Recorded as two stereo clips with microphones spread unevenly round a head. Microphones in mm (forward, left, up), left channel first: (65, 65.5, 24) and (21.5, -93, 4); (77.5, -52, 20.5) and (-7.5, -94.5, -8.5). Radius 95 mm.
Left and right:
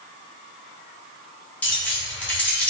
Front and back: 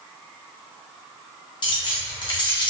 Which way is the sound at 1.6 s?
5° right.